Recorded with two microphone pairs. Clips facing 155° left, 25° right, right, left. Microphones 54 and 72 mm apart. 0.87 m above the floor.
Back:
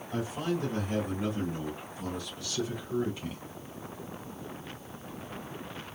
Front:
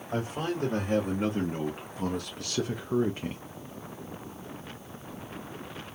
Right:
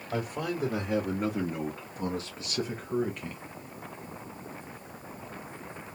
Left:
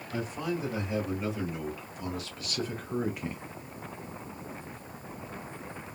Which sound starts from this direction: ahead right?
A man speaking, at 0.1 s.